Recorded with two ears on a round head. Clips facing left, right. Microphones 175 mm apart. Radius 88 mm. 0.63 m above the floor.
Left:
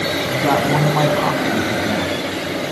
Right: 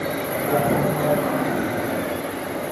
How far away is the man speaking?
About 5.5 m.